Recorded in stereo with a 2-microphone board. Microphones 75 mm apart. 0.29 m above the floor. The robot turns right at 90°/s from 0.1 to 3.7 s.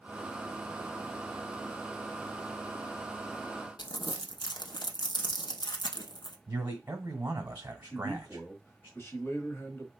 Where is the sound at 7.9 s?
35° left (ahead or behind), 1.2 m.